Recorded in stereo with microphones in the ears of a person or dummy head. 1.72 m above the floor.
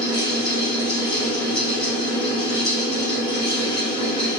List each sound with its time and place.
0.0 s a fan: 25° left (ahead or behind), 1.6 m